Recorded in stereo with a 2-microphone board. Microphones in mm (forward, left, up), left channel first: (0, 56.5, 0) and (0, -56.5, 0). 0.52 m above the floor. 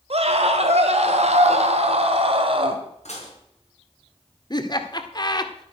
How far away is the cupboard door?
I don't hear a cupboard door.